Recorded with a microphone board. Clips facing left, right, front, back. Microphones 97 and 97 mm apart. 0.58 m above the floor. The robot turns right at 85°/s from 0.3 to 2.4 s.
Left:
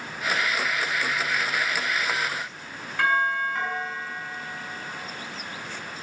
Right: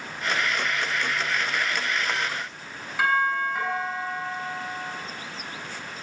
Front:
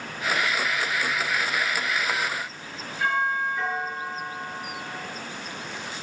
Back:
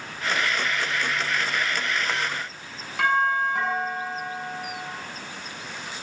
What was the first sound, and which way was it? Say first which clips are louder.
A doorbell: even, back 3 dB; 175° right.